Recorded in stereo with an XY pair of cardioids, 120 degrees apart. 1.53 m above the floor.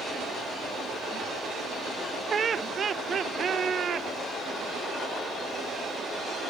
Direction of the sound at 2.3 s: 35° right.